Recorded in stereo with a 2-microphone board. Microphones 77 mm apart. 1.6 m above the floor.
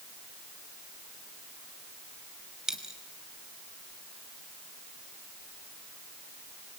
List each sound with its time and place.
2.7 s a dropped coin: 5° right (ahead or behind), 2.5 m